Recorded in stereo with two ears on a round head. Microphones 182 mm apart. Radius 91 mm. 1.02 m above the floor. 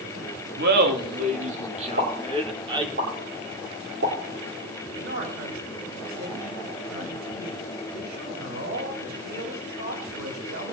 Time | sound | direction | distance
0.6 | laughter | 55° right (ahead or behind) | 2.5 m
2.0 | a pop | 60° right (ahead or behind) | 8 m
5.0 | a man speaking | 75° right (ahead or behind) | 6 m